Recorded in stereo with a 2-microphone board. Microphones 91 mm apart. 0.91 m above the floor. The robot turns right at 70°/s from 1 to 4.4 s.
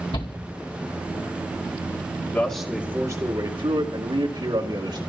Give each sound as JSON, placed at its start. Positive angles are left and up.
{"t": 0.1, "sound": "a shout", "side_deg": 70, "distance_m": 2.5}
{"t": 2.3, "sound": "a man speaking", "azimuth_deg": 160, "distance_m": 2.0}